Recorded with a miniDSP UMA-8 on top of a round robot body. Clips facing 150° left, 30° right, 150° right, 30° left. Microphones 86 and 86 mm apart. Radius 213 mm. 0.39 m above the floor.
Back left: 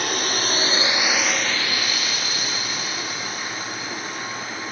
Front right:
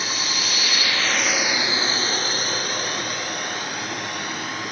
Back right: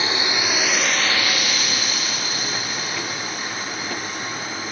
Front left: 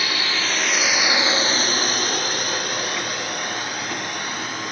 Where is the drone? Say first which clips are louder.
Back left 3 dB, back right 2 dB; 150° left; by 4.7 s straight ahead.